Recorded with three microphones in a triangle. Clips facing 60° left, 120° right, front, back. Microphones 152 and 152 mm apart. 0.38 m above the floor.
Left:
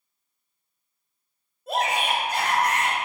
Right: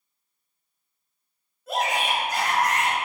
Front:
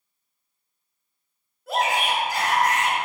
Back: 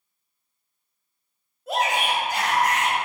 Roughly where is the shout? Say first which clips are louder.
Left 1 dB, even; behind left.